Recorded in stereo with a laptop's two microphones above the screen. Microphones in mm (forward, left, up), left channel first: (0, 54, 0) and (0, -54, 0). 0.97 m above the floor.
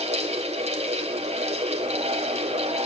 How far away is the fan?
About 2 m.